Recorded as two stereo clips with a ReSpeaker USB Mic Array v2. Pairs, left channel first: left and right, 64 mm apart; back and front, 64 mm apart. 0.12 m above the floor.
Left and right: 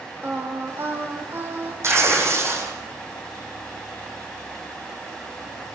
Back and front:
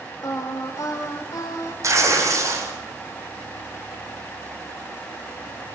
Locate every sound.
0.2 s singing: 145° right, 5 m
1.8 s tearing paper: 40° right, 7.5 m